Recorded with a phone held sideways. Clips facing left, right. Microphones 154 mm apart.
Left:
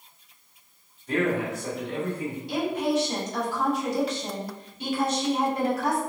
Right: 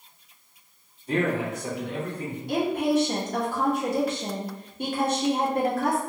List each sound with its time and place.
1.1 s a man speaking: 35° right (ahead or behind), 1.5 m; by 2.4 s 20° left (ahead or behind), 1.1 m
2.5 s a woman speaking: 55° right (ahead or behind), 0.8 m